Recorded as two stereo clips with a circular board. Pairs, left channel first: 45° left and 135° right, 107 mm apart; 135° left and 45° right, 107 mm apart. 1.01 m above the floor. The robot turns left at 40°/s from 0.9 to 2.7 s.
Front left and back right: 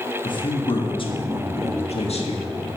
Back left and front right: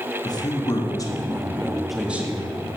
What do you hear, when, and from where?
0.2 s a man speaking: 85° left, 1.8 m; by 2.7 s 15° left, 1.8 m